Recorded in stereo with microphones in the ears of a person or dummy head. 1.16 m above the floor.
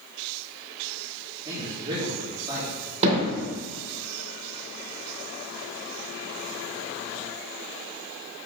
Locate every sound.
1.4 s a man speaking: 20° right (ahead or behind), 2.5 m
3.0 s hammering: 35° right (ahead or behind), 3 m